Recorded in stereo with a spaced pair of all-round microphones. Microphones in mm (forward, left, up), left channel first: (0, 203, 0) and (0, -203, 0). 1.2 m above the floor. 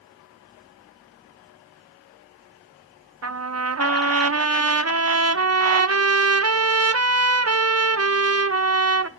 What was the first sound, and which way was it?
A trumpet, 35° right (ahead or behind).